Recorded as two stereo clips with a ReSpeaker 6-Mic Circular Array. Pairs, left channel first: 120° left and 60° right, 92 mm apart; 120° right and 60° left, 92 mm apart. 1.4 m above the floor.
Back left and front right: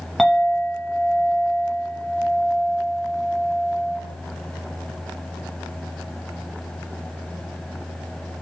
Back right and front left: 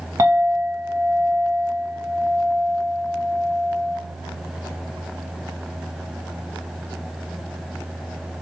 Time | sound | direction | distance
0.2 | a clink | 30° left | 0.8 m